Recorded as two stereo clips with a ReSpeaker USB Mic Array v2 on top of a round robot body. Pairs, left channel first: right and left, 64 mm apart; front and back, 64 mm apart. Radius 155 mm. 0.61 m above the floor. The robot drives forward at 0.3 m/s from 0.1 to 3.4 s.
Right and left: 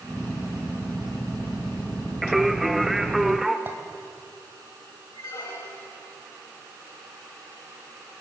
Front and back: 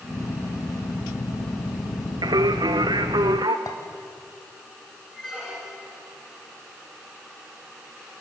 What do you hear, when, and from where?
2.2 s singing: straight behind, 0.9 m
3.7 s a clink: 35° left, 3 m
5.1 s a squeak: 90° right, 9 m